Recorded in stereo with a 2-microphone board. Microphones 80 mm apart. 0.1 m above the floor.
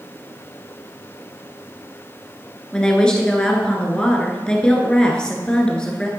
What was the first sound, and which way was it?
A woman speaking, 10° left (ahead or behind).